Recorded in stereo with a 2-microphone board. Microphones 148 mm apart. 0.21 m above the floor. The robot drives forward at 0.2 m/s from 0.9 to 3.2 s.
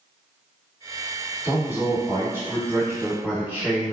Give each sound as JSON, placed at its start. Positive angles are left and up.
{"t": 1.4, "sound": "a man speaking", "side_deg": -15, "distance_m": 1.3}